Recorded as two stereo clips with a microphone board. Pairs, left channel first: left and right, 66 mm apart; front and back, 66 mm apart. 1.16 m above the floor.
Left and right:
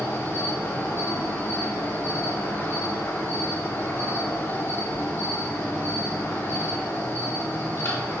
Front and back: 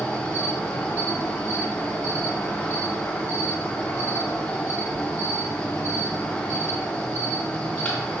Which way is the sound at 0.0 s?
60° left.